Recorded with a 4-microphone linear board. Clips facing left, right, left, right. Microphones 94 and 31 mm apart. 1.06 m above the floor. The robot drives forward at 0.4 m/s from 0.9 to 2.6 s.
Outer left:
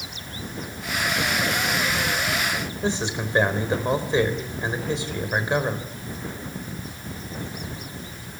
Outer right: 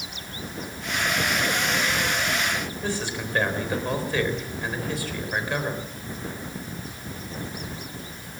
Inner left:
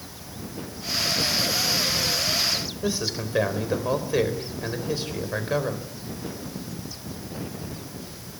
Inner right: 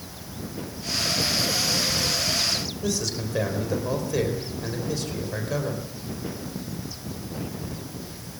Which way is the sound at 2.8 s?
20° left (ahead or behind).